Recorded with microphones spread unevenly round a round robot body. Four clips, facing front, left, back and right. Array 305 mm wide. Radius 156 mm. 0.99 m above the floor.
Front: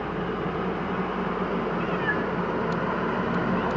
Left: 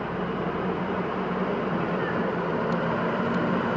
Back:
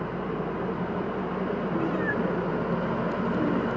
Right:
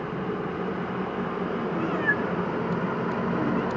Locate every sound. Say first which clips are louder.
1.8 s a cat meowing: even, even; 150° right, 0.7 m